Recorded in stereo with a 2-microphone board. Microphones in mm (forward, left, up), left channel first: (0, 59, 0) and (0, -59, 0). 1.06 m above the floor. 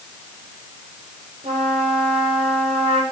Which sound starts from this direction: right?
A trumpet, at 1.4 s.